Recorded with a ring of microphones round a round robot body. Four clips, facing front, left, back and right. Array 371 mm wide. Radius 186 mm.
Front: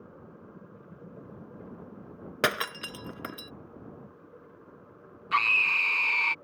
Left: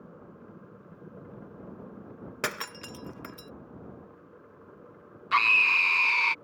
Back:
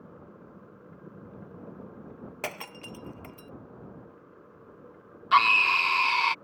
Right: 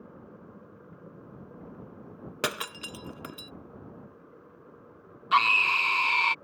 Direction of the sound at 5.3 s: 155° right.